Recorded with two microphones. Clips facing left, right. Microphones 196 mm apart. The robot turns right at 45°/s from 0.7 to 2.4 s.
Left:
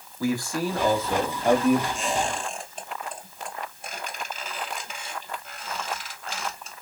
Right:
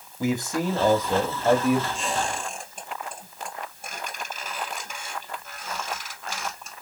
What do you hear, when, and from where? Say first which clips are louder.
0.2 s a man speaking: right 1 dB; 20° right (ahead or behind), 0.8 m; by 1.9 s centre (ahead or behind), 0.8 m
1.9 s a squeak: left 1 dB; 30° right (ahead or behind), 3 m; by 6.7 s 50° right (ahead or behind), 3 m